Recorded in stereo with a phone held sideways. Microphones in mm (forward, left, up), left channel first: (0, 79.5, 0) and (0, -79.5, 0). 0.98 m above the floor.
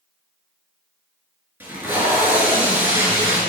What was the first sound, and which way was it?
Tape being pulled, 10° right (ahead or behind).